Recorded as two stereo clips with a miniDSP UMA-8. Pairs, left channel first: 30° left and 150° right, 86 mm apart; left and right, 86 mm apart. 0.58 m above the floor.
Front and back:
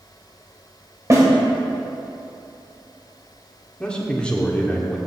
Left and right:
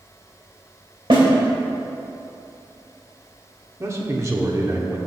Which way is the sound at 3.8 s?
45° right.